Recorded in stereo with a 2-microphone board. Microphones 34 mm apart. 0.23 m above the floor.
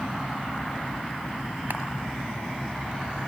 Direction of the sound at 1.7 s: 70° right (ahead or behind).